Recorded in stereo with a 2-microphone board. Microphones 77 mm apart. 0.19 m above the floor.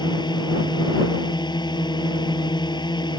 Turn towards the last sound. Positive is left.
turn(degrees=70)  # may be behind; listen again after turning